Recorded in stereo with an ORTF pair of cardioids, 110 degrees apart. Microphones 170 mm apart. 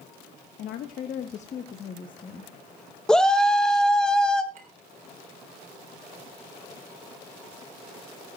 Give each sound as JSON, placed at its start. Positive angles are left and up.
{"t": 0.6, "sound": "a woman speaking", "azimuth_deg": 65, "distance_m": 1.2}
{"t": 3.1, "sound": "a shout", "azimuth_deg": 5, "distance_m": 0.8}
{"t": 4.5, "sound": "a clink", "azimuth_deg": -45, "distance_m": 4.0}